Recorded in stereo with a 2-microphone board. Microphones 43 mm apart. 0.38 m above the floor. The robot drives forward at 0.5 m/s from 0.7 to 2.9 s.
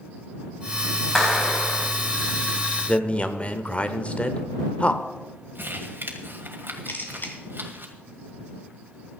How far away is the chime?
I don't hear a chime.